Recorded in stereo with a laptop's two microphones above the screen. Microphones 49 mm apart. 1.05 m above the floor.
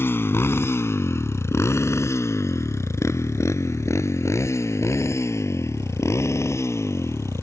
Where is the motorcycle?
55° left (ahead or behind); by 7.4 s 75° left (ahead or behind).